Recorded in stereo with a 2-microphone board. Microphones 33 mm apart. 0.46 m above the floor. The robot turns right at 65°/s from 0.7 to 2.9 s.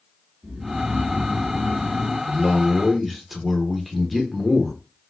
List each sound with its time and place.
0.4 s snoring: 135° right, 1.5 m; by 2.2 s 40° right, 1.5 m
2.3 s a man speaking: 45° right, 1.0 m; by 4.7 s straight ahead, 1.0 m